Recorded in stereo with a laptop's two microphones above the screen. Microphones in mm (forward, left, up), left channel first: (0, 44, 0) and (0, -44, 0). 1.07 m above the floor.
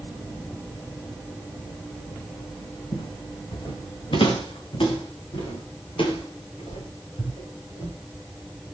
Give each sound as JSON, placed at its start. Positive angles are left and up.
{"t": 2.9, "sound": "footsteps", "side_deg": 70, "distance_m": 3.5}